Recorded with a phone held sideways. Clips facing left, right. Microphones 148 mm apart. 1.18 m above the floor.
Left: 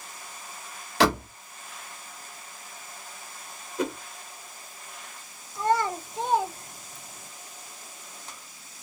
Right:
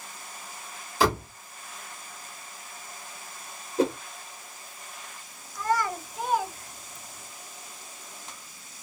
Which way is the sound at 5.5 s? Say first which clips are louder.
Left 2 dB; 25° left (ahead or behind).